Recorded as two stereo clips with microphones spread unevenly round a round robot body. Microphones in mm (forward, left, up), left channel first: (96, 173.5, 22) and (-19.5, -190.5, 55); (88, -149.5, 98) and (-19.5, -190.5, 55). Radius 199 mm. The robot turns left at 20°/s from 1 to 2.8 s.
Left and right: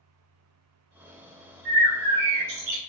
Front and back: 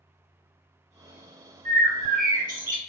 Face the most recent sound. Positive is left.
turn(degrees=-165)